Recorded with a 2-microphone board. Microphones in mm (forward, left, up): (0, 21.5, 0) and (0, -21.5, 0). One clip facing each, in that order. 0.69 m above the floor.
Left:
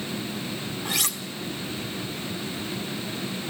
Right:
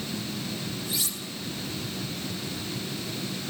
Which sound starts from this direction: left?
Cutlery clinking, at 0.8 s.